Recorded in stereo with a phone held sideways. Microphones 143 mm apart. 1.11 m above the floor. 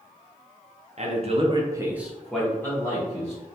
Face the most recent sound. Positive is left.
turn(degrees=25)  # may be behind; listen again after turning